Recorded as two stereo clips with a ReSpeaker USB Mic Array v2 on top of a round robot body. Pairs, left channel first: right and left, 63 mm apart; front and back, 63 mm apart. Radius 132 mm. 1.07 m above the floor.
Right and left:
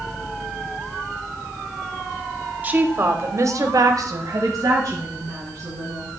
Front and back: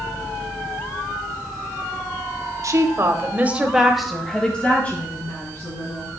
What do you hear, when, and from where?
2.6 s a woman speaking: 150° left, 1.1 m; by 6.1 s 55° left, 2 m